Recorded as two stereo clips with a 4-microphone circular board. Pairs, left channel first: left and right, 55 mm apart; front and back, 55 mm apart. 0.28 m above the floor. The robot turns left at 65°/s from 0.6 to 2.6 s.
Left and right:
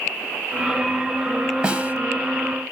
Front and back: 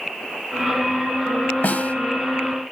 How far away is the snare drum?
About 1.4 m.